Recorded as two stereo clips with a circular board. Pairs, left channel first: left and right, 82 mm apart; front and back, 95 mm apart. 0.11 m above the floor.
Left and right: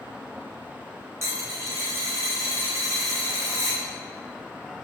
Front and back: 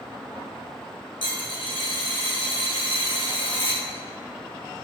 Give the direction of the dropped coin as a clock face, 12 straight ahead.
1 o'clock.